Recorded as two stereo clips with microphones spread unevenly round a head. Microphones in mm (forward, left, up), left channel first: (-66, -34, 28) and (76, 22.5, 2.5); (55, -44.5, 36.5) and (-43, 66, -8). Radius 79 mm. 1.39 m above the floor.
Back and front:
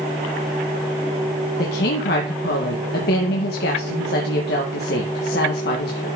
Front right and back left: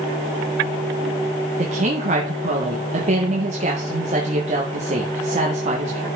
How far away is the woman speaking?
About 2.0 m.